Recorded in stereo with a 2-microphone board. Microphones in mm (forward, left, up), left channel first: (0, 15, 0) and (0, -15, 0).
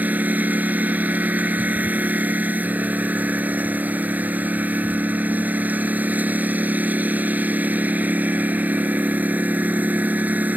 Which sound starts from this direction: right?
A lawn mower, at 0.0 s.